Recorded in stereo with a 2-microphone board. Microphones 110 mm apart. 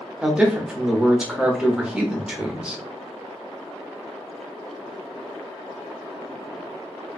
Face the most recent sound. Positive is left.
turn(degrees=-5)  # may be behind; listen again after turning